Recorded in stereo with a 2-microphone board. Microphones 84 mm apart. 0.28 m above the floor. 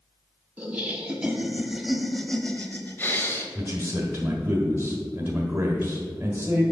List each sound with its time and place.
0.6 s laughter: 20° right (ahead or behind), 1.6 m; by 3.5 s 35° left (ahead or behind), 1.1 m
3.5 s a man speaking: 20° right (ahead or behind), 1.5 m